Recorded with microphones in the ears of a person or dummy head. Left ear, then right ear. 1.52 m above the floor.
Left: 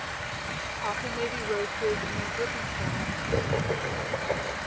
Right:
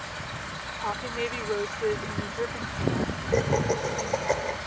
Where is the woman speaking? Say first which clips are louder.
Right 1 dB; 15° right (ahead or behind).